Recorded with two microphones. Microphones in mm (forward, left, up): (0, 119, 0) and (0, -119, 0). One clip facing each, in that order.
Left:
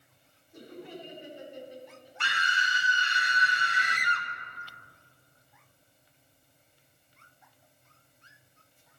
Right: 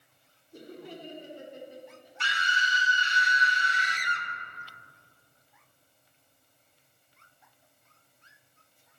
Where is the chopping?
No chopping in this recording.